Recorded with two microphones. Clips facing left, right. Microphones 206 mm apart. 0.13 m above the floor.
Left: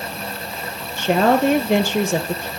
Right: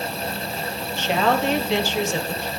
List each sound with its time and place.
1.0 s a woman speaking: 50° left (ahead or behind), 2.5 m